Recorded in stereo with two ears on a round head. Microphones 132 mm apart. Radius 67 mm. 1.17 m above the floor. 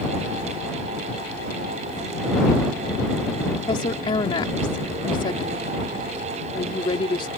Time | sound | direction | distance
3.5 | a woman speaking | 35° left (ahead or behind) | ?